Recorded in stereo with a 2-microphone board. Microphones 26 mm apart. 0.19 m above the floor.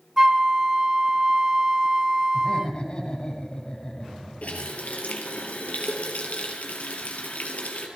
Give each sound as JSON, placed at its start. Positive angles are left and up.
{"t": 0.2, "sound": "a flute", "side_deg": -20, "distance_m": 0.9}
{"t": 2.3, "sound": "laughter", "side_deg": 25, "distance_m": 5.5}
{"t": 4.4, "sound": "a running tap", "side_deg": 65, "distance_m": 3.0}